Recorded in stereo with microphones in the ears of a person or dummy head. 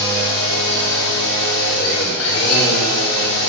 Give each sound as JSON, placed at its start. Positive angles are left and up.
{"t": 0.0, "sound": "a machine running", "side_deg": 80, "distance_m": 2.0}